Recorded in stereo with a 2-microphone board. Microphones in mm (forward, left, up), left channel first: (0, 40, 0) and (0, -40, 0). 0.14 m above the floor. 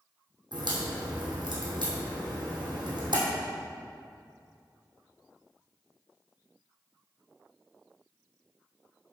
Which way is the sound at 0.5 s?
70° right (ahead or behind).